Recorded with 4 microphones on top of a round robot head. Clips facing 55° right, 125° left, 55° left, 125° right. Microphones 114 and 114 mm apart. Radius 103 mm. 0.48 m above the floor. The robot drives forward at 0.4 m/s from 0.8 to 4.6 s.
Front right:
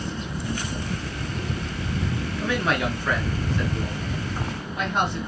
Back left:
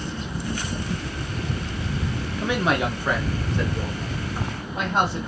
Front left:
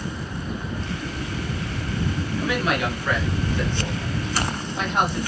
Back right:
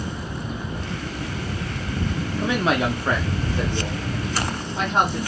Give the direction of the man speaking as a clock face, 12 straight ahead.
6 o'clock.